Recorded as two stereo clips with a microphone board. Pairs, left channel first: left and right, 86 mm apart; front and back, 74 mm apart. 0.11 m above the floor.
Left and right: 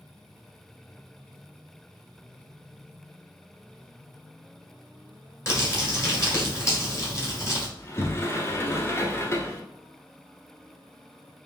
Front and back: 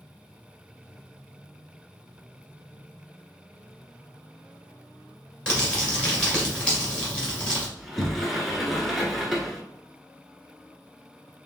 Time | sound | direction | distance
5.5 | crumpling | 65° left | 2 m
7.8 | a sliding door | 90° left | 0.9 m